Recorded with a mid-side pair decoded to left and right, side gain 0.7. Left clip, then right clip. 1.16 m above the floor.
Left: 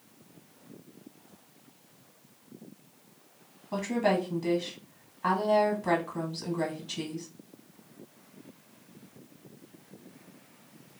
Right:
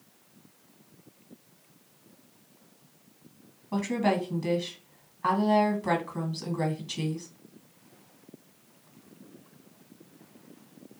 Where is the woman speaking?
Straight ahead, 1.3 m.